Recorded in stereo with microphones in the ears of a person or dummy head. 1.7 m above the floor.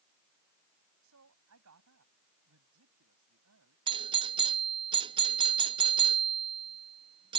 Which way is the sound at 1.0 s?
80° right.